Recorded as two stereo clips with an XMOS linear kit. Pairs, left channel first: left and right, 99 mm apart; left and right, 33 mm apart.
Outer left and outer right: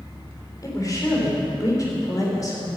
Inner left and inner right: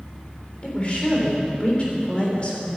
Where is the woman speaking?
40° left (ahead or behind), 3.5 m.